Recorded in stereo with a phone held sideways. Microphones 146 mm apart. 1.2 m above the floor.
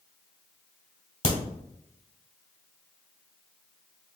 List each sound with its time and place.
1.2 s a crack: 50° left (ahead or behind), 1.8 m